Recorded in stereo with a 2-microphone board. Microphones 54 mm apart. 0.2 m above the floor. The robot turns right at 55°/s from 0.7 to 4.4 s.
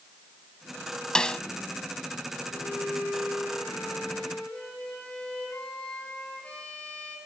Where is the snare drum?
15° left (ahead or behind), 0.6 m; by 1.4 s 20° left (ahead or behind), 0.6 m.